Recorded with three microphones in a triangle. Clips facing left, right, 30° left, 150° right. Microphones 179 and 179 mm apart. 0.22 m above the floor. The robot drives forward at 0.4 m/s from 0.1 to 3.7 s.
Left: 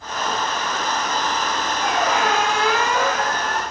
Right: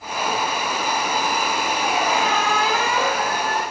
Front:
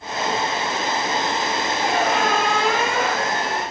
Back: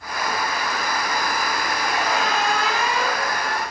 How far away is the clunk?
I don't hear a clunk.